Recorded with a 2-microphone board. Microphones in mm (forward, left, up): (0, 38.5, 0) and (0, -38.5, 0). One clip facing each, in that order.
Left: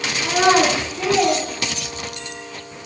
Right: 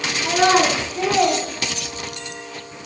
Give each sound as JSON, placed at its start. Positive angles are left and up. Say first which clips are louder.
{"t": 0.2, "sound": "a child speaking", "louder": "left 1 dB", "side_deg": 20, "distance_m": 0.8}